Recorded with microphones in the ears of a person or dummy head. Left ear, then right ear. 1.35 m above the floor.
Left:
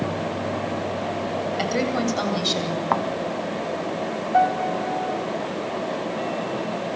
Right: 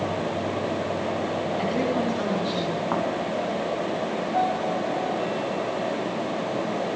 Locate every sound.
1.6 s a woman speaking: 60° left (ahead or behind), 8.5 m
2.9 s a thud: 30° left (ahead or behind), 1.4 m
4.3 s a piano: 65° left (ahead or behind), 5 m